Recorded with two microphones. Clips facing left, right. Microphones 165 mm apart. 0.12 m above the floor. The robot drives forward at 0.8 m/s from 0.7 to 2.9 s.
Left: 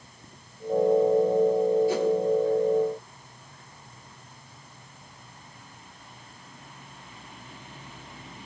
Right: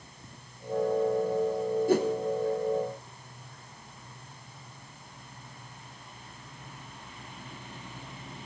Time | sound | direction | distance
1.9 | a whoosh | 50° right (ahead or behind) | 2 m